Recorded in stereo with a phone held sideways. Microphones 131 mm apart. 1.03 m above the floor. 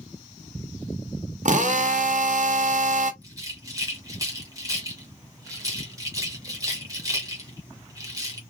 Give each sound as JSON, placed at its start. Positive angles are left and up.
{"t": 1.4, "sound": "a drill", "side_deg": -65, "distance_m": 0.6}
{"t": 3.2, "sound": "a rattle", "side_deg": -25, "distance_m": 1.5}